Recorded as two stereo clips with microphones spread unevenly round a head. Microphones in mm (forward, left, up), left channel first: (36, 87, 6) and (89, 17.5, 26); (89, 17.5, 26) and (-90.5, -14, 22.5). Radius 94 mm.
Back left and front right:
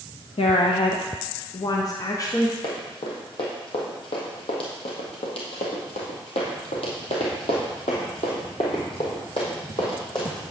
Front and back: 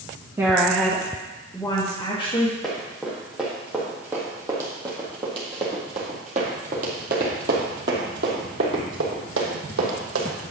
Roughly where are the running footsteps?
Left.